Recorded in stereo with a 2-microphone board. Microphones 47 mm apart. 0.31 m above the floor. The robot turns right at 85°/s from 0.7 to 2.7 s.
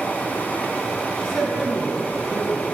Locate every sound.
1.2 s a man speaking: 160° left, 3 m; by 2.6 s 80° right, 3 m